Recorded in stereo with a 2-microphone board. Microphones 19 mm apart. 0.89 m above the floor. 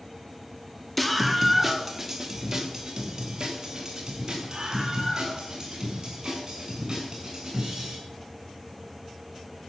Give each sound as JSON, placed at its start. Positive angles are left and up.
{"t": 1.0, "sound": "a scream", "side_deg": 5, "distance_m": 1.2}